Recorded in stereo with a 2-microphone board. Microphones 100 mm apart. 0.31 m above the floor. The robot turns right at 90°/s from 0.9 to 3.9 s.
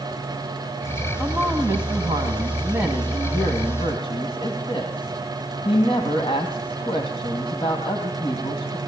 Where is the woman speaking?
165° right, 2 m; by 8.8 s 80° left, 2 m.